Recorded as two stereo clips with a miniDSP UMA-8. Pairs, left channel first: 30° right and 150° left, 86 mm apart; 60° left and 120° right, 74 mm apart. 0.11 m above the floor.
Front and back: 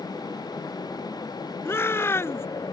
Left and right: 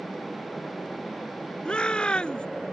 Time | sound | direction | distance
1.6 | a shout | 5° right | ?